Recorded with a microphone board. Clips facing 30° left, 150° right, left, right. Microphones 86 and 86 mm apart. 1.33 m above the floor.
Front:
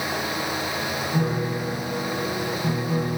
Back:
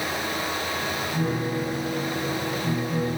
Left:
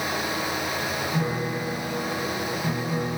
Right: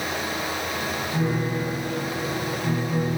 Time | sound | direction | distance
1.1 | a piano | 5° right | 6 m